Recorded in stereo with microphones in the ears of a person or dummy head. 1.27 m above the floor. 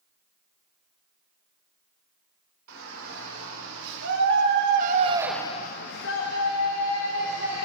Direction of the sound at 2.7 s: 75° right (ahead or behind).